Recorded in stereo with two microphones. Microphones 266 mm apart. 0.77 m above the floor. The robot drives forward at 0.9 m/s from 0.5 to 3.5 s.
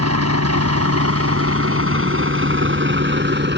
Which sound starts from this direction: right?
A vehicle, at 0.0 s.